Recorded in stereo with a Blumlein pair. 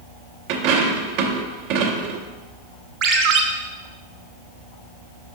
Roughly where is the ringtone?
Ahead right.